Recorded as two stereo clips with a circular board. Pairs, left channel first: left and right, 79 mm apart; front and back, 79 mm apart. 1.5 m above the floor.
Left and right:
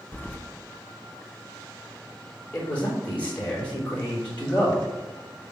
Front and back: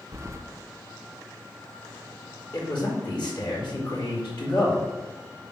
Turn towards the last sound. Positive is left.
turn(degrees=15)